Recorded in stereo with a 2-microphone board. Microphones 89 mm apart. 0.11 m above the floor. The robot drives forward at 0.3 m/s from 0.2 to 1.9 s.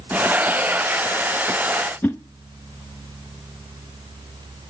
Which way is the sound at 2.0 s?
20° left (ahead or behind).